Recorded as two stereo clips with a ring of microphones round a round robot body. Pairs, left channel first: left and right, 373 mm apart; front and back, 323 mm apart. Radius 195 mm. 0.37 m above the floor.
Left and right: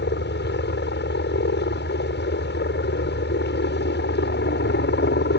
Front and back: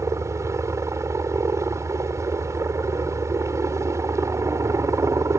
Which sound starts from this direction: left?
A helicopter, at 0.0 s.